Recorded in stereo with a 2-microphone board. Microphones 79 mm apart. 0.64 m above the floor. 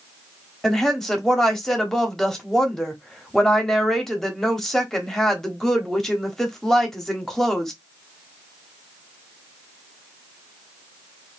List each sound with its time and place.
0.6 s a woman speaking: 5° left (ahead or behind), 1.1 m